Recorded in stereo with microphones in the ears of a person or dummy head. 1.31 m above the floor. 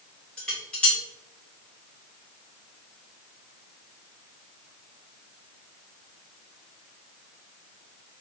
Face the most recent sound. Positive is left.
turn(degrees=5)  # may be behind; listen again after turning